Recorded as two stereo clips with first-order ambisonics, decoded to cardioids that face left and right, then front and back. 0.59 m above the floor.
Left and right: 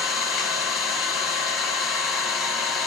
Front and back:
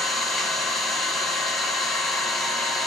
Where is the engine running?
60° left, 1.0 m.